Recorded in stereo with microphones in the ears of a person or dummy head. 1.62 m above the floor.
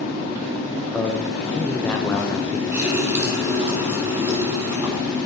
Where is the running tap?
20° right (ahead or behind), 3.5 m.